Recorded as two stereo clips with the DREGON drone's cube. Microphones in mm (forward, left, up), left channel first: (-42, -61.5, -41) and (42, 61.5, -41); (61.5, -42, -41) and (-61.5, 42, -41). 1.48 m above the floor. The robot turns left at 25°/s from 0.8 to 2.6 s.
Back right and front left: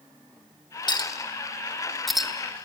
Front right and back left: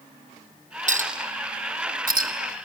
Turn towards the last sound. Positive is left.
turn(degrees=135)